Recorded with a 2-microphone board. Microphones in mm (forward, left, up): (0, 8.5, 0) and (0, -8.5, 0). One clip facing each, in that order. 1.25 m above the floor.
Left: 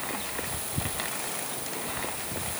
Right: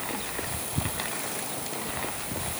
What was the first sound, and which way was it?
Only background noise.